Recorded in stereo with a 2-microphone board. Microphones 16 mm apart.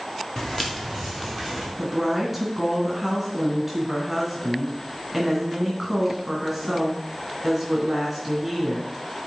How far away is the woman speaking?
About 2.5 m.